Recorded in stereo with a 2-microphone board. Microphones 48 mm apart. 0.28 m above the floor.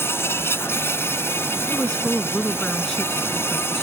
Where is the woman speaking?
10° left (ahead or behind).